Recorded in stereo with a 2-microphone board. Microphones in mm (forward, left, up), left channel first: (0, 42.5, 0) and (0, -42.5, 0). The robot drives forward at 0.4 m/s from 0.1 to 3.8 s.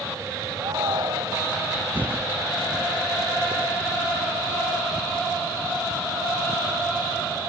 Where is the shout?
75° right (ahead or behind).